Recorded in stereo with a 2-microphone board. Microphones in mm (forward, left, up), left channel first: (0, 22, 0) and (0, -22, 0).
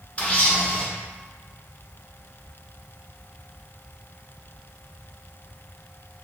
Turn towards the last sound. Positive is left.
turn(degrees=30)  # may be behind; listen again after turning